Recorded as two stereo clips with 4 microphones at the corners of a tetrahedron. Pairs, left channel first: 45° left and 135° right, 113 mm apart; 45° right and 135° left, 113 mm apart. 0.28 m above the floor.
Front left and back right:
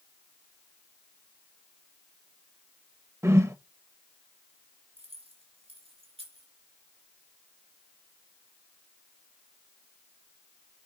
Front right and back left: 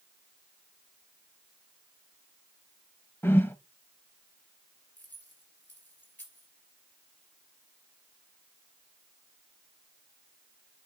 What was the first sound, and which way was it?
A whoosh, 95° right.